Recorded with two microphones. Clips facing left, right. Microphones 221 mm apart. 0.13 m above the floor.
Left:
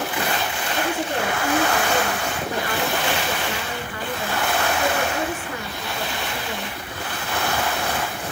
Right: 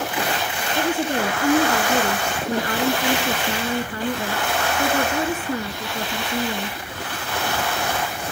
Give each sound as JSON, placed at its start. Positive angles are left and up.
{"t": 0.8, "sound": "a woman speaking", "side_deg": -40, "distance_m": 1.5}